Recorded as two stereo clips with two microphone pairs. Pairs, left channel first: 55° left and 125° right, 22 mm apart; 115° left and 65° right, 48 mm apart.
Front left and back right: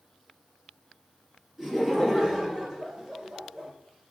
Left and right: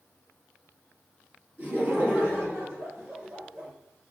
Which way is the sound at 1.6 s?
45° right.